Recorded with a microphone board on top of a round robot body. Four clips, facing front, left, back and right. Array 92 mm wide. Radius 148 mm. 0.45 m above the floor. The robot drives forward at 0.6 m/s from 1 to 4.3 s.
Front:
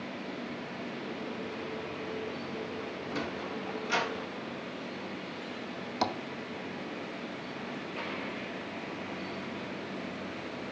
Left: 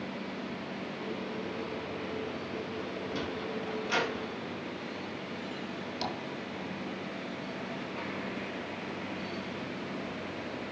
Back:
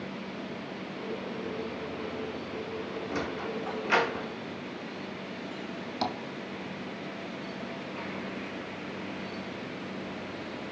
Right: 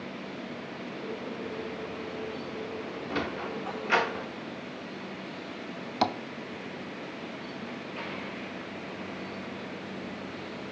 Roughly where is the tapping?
Right.